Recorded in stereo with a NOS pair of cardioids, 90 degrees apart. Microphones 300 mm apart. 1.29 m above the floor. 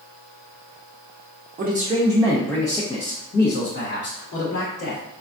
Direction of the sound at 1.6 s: 35° right.